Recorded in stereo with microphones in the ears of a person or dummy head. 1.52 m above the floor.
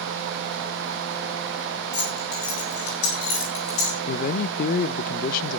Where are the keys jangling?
65° left (ahead or behind), 9 m; by 4.0 s 70° left (ahead or behind), 8 m.